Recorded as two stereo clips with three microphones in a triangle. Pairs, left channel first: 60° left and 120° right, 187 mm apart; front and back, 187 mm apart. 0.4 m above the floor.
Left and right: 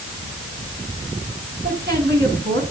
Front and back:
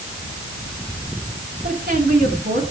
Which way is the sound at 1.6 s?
145° right.